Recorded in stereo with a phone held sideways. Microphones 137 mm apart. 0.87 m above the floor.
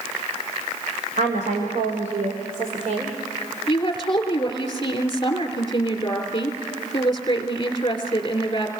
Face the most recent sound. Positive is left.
turn(degrees=35)  # may be behind; listen again after turning